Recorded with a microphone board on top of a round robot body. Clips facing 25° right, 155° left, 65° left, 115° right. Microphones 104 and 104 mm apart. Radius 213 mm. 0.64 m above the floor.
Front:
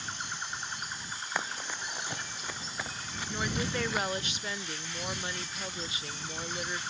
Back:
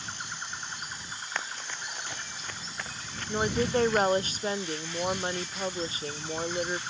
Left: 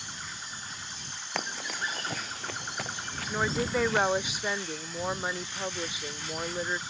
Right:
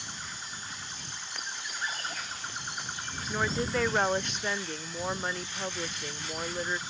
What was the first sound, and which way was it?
Running footsteps, 60° left.